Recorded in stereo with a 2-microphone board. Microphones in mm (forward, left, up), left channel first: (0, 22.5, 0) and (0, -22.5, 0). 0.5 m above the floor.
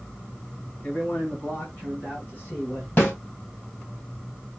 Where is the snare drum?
35° left (ahead or behind), 3 m.